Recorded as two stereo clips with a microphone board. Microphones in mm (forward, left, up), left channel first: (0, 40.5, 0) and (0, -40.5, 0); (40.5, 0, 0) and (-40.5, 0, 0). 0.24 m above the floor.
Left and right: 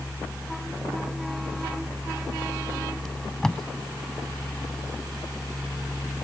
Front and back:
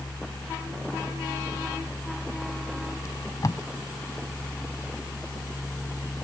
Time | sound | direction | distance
3.0 | tape being pulled | 10° left | ?